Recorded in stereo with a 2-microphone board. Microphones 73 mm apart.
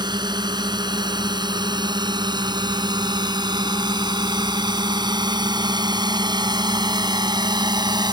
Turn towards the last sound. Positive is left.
turn(degrees=-75)  # may be behind; listen again after turning